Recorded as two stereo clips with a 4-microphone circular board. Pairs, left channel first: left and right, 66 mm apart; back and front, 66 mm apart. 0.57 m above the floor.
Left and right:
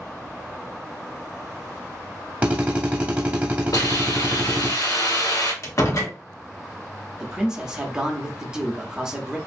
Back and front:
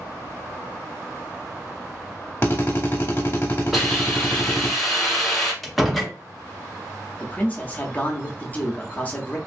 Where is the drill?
145° right, 0.9 m.